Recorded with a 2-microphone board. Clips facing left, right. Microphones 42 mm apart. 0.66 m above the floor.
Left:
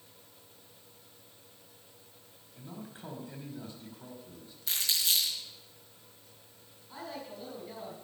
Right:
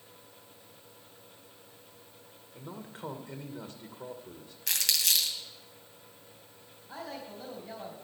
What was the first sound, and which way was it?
A man speaking, 65° right (ahead or behind).